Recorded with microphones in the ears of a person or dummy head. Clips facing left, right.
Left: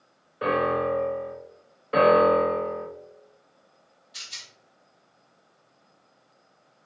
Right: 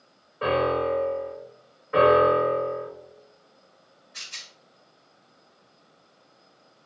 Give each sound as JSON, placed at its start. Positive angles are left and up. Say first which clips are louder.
{"t": 0.4, "sound": "a piano", "louder": "right 1 dB", "side_deg": 20, "distance_m": 1.5}
{"t": 1.9, "sound": "a piano", "louder": "even", "side_deg": 50, "distance_m": 1.5}
{"t": 4.1, "sound": "a rattle", "louder": "right 1 dB", "side_deg": 50, "distance_m": 1.5}